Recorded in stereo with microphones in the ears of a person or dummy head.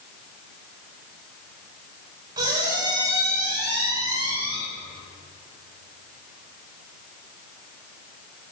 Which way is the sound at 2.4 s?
15° right (ahead or behind).